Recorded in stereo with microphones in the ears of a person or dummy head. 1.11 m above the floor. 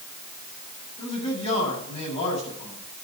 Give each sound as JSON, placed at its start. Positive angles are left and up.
{"t": 1.0, "sound": "a man speaking", "side_deg": 35, "distance_m": 8.0}